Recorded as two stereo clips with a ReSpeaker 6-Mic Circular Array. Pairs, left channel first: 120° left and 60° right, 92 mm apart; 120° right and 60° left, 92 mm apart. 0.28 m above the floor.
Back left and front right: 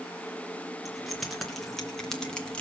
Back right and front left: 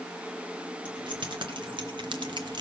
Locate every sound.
0.8 s keys jangling: 30° left, 3 m; by 2.6 s 45° left, 1.6 m